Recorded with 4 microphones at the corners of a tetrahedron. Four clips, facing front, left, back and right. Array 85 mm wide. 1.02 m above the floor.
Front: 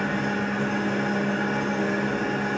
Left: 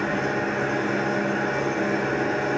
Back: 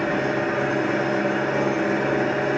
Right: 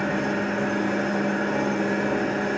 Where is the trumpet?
I don't hear a trumpet.